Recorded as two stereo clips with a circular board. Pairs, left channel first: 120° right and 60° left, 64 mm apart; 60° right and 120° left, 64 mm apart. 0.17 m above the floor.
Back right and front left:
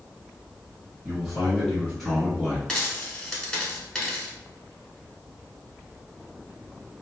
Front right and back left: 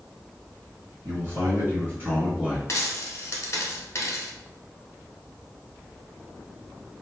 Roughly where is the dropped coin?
Ahead right.